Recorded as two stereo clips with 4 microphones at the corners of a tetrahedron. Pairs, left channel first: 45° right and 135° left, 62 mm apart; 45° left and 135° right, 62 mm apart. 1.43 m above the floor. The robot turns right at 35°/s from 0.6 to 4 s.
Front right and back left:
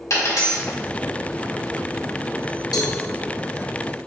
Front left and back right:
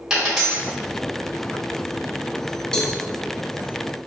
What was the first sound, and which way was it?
A dropped coin, 55° right.